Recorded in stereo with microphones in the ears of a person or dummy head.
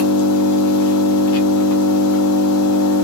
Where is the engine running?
75° left (ahead or behind), 0.7 m.